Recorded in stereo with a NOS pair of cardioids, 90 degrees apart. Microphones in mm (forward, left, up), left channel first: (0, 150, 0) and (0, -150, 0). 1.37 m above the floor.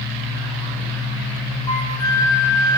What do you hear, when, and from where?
1.7 s a flute: 15° left, 4 m